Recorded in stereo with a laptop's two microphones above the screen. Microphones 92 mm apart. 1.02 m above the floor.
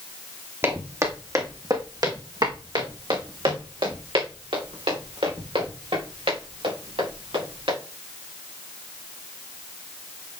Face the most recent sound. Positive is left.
turn(degrees=-80)